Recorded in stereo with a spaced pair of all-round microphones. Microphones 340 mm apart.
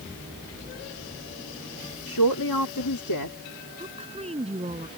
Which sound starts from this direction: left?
A man speaking, at 2.1 s.